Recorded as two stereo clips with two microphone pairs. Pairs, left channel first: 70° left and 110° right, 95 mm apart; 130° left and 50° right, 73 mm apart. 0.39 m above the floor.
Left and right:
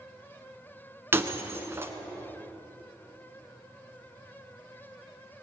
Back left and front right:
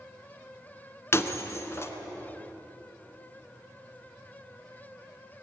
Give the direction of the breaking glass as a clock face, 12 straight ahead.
6 o'clock.